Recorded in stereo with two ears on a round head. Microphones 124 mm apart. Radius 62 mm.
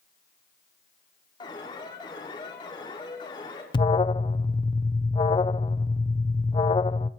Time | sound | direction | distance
1.4 | an alarm | 30° left (ahead or behind) | 5.5 m
3.7 | an alarm | 35° left (ahead or behind) | 1.0 m